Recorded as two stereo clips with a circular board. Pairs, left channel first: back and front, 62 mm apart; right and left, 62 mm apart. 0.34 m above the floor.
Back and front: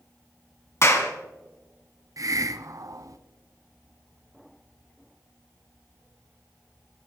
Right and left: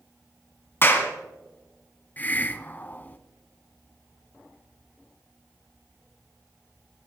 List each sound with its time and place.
0.8 s a clap: 140° right, 2 m
2.2 s a hiss: 25° right, 0.7 m